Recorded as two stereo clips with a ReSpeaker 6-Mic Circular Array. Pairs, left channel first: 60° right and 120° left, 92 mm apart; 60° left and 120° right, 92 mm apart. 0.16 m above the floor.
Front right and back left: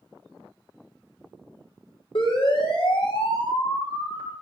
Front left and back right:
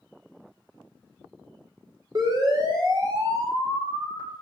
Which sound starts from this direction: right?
A siren, at 2.1 s.